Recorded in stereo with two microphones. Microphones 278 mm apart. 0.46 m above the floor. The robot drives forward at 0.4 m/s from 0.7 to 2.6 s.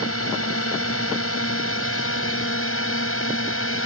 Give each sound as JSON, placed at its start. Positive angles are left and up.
{"t": 0.0, "sound": "a drone", "side_deg": 55}